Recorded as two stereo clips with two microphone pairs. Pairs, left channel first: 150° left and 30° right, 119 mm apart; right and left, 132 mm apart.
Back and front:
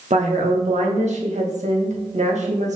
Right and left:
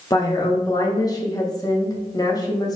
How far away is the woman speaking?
About 1.6 m.